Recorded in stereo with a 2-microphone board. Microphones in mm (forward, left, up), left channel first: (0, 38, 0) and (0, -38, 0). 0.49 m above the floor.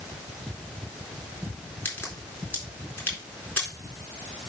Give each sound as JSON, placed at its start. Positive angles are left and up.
{"t": 1.9, "sound": "a crack", "side_deg": 25, "distance_m": 4.0}